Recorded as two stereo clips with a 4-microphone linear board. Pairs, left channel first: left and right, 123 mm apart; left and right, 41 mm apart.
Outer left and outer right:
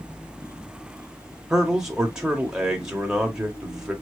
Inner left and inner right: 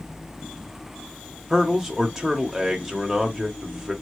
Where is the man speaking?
5° right (ahead or behind), 1.0 m.